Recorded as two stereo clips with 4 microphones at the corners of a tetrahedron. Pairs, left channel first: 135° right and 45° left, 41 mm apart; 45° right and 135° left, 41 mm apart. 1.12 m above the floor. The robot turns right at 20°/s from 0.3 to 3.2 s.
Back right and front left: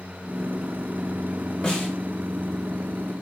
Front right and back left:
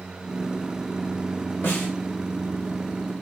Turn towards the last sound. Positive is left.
turn(degrees=-35)